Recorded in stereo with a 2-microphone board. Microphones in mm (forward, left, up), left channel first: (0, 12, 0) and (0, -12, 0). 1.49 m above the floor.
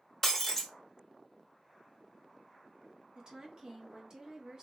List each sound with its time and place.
0.2 s breaking glass: 10° left (ahead or behind), 0.7 m
3.1 s a woman speaking: 35° right (ahead or behind), 1.0 m